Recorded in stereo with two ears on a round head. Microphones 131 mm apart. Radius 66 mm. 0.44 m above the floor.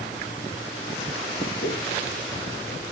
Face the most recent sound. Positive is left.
turn(degrees=25)  # may be behind; listen again after turning